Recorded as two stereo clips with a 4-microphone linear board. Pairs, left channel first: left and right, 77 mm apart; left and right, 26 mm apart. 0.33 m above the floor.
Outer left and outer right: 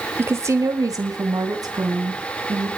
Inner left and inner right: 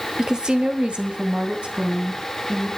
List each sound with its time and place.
0.2 s a woman speaking: 25° right (ahead or behind), 1.2 m; by 2.7 s 50° right (ahead or behind), 4 m